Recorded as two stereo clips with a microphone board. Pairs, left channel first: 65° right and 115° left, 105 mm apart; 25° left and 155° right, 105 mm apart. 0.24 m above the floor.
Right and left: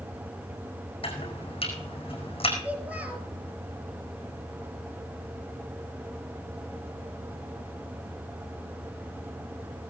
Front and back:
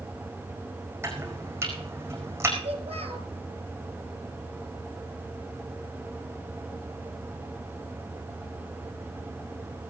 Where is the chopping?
95° right, 4.5 m.